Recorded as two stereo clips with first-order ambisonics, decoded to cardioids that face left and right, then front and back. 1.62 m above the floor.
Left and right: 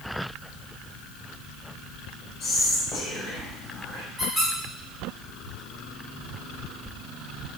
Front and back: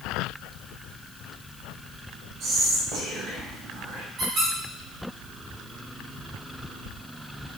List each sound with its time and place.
2.4 s whispering: 135° left, 1.0 m
4.2 s a squeak: 160° right, 1.7 m